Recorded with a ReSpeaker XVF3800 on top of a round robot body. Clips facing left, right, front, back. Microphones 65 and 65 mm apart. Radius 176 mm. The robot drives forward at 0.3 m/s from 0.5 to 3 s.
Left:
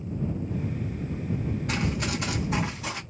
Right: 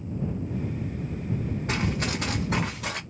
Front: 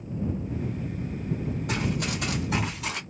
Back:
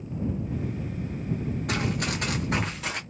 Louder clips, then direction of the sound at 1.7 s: Right 2 dB, back 1 dB; 155° right.